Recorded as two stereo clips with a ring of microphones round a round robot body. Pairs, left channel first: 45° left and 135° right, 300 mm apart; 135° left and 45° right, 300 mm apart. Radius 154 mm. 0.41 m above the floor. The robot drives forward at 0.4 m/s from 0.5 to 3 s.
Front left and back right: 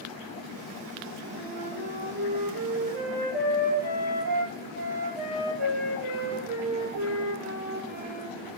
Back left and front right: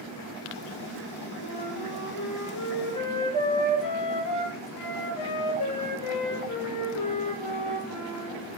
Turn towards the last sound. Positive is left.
turn(degrees=165)